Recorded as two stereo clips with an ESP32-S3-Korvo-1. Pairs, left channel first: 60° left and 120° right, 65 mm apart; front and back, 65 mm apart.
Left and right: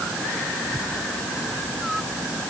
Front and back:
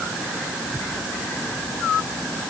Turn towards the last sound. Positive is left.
No sound to turn to.